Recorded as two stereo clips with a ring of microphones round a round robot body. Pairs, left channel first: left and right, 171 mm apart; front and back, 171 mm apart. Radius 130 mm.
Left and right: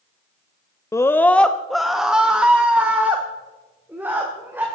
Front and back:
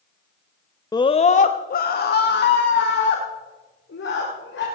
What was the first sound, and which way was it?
A scream, 40° left.